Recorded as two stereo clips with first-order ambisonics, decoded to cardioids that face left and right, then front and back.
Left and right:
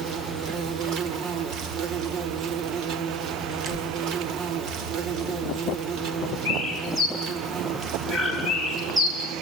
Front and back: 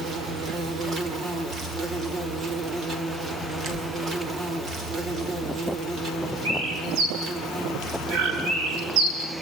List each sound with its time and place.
0.0 s an insect: 125° right, 2.5 m
3.5 s a door slam: 145° right, 8 m
6.5 s a bird: 165° right, 8.5 m